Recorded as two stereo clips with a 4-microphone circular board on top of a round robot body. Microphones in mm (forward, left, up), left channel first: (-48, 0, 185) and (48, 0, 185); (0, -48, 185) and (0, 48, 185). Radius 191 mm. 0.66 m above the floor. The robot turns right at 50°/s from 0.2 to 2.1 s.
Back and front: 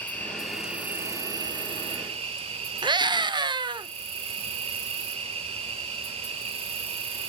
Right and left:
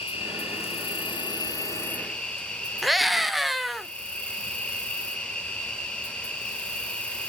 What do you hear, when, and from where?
0.0 s an insect: 105° right, 1.5 m; by 7.3 s 10° right, 1.5 m
2.8 s a scream: straight ahead, 1.6 m